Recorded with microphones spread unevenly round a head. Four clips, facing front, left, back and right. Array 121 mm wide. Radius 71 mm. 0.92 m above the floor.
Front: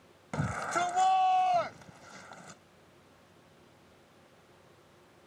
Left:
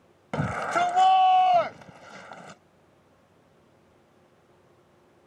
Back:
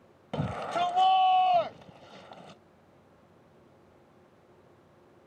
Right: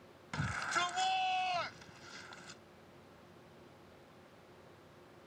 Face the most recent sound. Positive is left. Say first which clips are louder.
# left 12 dB, back 2 dB
turn(degrees=115)